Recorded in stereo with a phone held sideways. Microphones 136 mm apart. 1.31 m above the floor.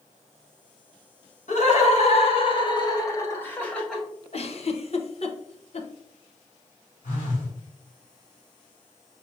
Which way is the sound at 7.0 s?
70° left (ahead or behind).